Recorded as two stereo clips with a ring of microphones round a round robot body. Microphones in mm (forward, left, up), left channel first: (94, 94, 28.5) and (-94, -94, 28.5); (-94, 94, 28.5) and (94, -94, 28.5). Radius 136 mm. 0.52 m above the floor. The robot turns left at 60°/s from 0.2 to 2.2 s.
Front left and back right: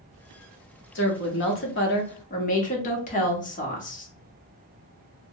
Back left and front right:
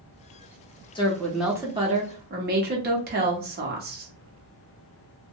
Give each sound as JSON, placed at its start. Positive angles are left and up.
{"t": 0.9, "sound": "a woman speaking", "azimuth_deg": 70, "distance_m": 0.9}